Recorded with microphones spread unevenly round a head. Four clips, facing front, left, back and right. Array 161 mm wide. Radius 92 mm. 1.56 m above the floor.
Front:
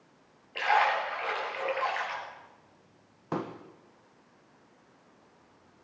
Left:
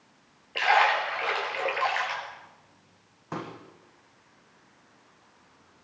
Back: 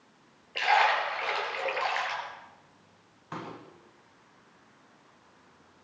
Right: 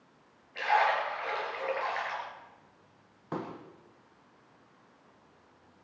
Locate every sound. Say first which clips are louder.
0.6 s a splash: left 4 dB, back 1 dB; 105° left, 5 m
3.3 s a pop: left 1 dB, front 6 dB; 15° right, 1.6 m